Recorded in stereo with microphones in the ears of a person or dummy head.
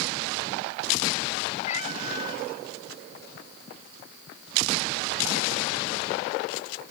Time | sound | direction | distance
1.6 | a cat meowing | 40° left (ahead or behind) | ?